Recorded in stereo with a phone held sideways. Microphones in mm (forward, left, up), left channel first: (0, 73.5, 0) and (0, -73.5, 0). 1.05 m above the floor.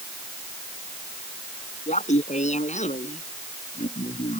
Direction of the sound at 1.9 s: 55° left (ahead or behind).